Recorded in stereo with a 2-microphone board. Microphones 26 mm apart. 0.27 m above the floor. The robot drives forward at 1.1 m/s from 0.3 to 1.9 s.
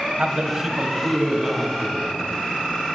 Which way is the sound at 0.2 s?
35° right (ahead or behind).